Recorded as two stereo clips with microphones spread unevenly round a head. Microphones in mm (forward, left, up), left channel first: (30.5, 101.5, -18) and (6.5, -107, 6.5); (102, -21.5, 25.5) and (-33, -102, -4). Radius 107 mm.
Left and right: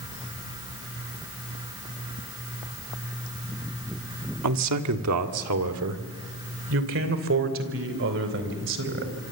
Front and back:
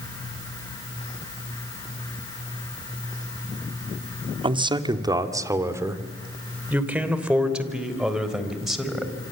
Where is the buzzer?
No buzzer in this recording.